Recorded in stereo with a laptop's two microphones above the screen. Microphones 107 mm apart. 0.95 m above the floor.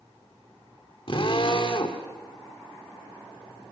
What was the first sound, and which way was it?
A drill, 55° left (ahead or behind).